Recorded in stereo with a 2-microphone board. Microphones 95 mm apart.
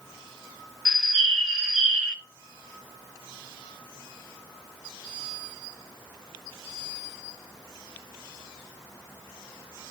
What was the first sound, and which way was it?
A bird, 5° right (ahead or behind).